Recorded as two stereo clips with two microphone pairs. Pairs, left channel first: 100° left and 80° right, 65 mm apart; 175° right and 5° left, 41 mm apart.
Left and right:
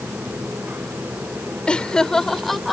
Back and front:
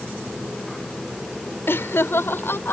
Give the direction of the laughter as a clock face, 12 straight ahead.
6 o'clock.